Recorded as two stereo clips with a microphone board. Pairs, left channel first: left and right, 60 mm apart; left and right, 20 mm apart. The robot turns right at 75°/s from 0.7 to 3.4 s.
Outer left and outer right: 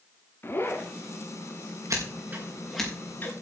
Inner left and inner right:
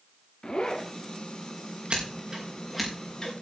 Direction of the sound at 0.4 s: 40° left (ahead or behind).